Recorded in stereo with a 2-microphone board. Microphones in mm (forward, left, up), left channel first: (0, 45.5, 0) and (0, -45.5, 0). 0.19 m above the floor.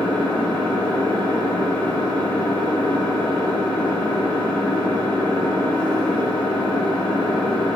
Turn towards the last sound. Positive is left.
turn(degrees=15)  # may be behind; listen again after turning